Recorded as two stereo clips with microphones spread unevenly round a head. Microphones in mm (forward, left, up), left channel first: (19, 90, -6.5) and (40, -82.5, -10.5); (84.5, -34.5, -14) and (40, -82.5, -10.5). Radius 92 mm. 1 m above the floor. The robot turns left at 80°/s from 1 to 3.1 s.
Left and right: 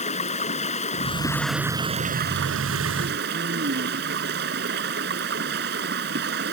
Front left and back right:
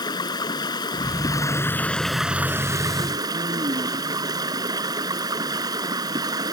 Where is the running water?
45° left; by 6.5 s 120° right.